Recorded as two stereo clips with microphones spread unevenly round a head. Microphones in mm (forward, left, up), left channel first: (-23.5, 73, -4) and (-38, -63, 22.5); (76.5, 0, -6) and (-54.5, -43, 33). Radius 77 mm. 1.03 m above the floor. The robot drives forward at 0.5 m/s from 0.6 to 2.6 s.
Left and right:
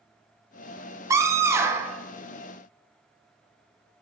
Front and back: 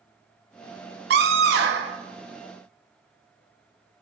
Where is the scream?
170° right, 1.2 m.